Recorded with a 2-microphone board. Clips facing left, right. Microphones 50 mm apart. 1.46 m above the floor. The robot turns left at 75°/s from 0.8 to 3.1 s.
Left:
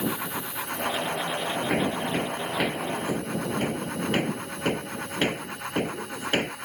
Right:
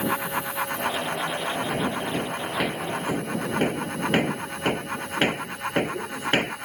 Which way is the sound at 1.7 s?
70° left (ahead or behind).